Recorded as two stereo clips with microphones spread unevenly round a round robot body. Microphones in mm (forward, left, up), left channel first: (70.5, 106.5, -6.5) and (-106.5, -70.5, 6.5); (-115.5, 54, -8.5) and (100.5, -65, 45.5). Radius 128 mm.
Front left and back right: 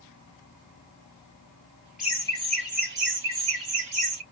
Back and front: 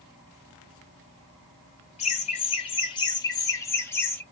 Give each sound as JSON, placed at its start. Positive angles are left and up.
{"t": 2.0, "sound": "laughter", "azimuth_deg": 135, "distance_m": 0.8}